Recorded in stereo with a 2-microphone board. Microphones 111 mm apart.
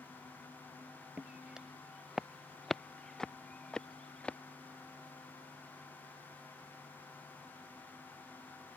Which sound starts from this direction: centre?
Footsteps, at 1.2 s.